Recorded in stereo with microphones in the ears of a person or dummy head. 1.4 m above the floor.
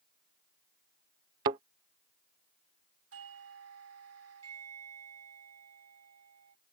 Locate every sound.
1.4 s a thud: 20° right (ahead or behind)
3.1 s a doorbell: 80° right